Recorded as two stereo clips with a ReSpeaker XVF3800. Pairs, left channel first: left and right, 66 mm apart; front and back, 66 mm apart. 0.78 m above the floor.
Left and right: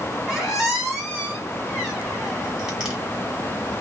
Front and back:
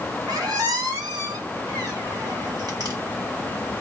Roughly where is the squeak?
Behind.